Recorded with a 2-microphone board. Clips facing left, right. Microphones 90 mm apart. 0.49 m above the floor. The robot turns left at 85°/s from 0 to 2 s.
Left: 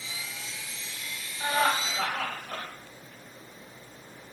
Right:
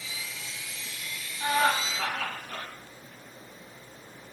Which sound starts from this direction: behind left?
Laughter, at 1.4 s.